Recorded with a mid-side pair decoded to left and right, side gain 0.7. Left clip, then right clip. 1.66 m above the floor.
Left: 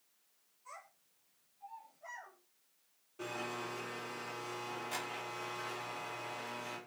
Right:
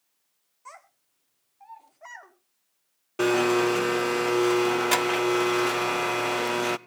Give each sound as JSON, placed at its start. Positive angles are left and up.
{"t": 0.7, "sound": "a child speaking", "azimuth_deg": -60, "distance_m": 4.0}
{"t": 3.2, "sound": "a blender", "azimuth_deg": -65, "distance_m": 0.7}